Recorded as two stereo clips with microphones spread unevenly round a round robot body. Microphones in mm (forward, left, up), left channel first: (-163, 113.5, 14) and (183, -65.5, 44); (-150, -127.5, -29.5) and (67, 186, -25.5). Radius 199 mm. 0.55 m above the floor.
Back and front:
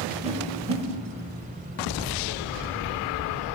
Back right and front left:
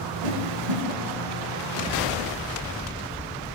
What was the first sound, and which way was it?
A whoosh, 50° left.